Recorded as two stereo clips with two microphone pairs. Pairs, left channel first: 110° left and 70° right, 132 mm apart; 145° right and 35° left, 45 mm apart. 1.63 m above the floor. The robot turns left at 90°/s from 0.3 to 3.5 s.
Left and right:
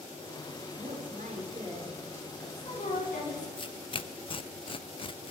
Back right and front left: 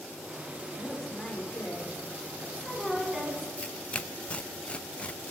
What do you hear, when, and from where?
0.8 s a woman speaking: 35° right, 6 m; by 3.5 s 80° left, 6 m
3.6 s tearing paper: 155° left, 0.5 m